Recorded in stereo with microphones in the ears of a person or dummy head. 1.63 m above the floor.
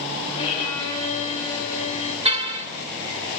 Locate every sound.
0.4 s a violin: 25° left (ahead or behind), 6 m
2.2 s a car horn: 30° right (ahead or behind), 2.5 m